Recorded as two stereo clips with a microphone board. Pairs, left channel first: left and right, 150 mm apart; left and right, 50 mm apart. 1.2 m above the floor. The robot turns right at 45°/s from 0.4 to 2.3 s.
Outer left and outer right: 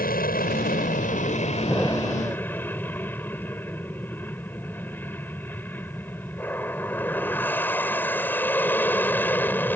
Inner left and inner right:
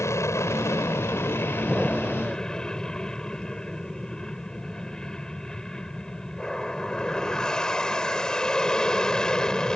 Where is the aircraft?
80° left; by 9.8 s 165° left.